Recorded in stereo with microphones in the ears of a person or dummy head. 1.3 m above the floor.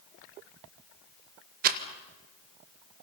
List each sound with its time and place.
1.6 s a rattle: 50° right (ahead or behind), 1.4 m